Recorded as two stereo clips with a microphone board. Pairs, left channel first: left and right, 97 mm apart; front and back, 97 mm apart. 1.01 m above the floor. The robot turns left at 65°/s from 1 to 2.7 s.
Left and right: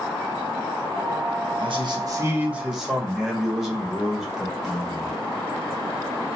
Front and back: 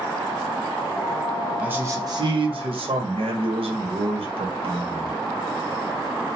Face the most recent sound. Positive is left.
turn(degrees=-175)